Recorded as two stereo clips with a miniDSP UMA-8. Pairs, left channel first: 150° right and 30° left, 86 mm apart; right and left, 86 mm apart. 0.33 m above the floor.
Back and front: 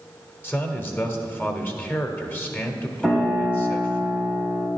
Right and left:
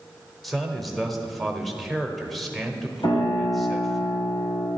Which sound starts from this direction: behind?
A man speaking, at 0.4 s.